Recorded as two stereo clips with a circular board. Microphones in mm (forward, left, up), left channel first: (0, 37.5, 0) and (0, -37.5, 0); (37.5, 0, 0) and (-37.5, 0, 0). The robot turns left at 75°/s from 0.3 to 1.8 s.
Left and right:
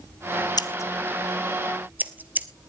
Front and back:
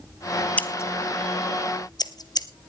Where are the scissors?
70° left, 0.9 m; by 2.5 s 25° right, 0.9 m.